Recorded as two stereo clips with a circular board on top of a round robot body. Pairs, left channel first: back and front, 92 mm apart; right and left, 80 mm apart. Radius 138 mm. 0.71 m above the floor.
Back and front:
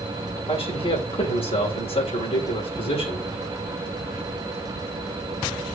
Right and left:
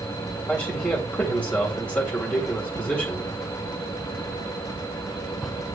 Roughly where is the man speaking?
Behind.